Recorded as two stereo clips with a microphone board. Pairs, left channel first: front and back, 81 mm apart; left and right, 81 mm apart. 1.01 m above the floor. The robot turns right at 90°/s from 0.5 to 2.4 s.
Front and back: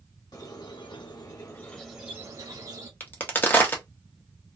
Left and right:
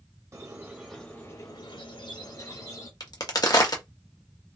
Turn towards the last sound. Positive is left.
turn(degrees=60)